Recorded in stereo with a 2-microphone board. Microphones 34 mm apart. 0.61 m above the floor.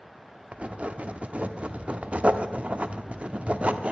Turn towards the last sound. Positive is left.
turn(degrees=-35)  # may be behind; listen again after turning